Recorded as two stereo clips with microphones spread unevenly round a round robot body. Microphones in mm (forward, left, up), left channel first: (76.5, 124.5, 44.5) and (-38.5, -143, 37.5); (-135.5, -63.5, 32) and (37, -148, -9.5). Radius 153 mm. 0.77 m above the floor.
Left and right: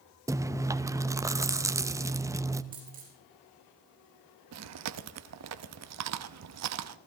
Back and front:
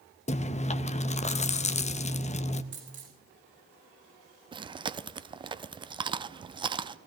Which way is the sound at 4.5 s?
85° right.